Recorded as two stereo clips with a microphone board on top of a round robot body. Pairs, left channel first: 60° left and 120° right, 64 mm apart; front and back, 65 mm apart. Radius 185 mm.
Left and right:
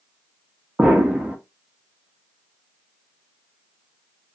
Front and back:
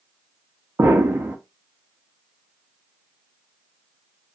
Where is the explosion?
Straight behind, 1.0 m.